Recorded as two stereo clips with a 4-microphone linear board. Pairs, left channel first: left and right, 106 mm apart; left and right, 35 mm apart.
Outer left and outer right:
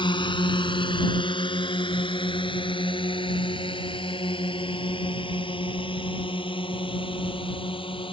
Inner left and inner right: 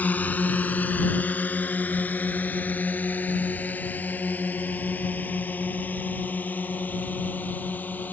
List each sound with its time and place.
0.0 s a drone: 50° left (ahead or behind); by 8.1 s 55° left (ahead or behind)